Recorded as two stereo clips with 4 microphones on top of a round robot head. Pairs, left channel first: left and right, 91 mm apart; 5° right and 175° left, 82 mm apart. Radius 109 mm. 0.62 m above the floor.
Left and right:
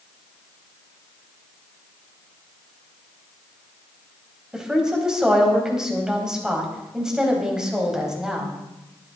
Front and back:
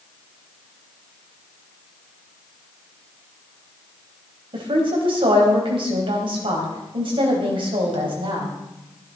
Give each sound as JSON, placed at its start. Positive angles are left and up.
{"t": 4.5, "sound": "a woman speaking", "azimuth_deg": -175, "distance_m": 3.5}